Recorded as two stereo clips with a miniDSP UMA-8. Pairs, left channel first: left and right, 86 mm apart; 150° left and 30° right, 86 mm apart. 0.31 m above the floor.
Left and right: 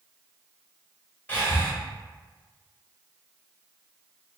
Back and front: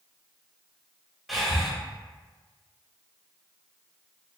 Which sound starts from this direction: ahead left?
Breathing, at 1.3 s.